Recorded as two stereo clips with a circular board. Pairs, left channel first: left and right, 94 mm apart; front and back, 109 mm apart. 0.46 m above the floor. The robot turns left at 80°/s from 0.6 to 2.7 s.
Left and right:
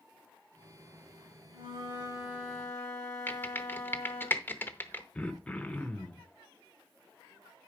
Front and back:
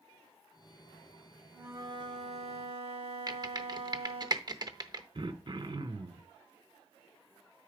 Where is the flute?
100° right, 2.5 m; by 4.3 s 170° left, 2.5 m.